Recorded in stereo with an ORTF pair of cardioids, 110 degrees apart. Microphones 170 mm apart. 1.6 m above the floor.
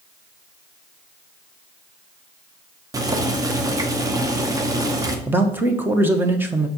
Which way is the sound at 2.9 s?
20° right.